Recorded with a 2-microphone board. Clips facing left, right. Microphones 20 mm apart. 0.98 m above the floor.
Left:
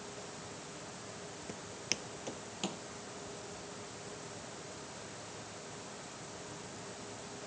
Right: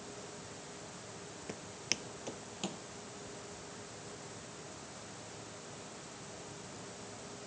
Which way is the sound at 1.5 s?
10° right (ahead or behind).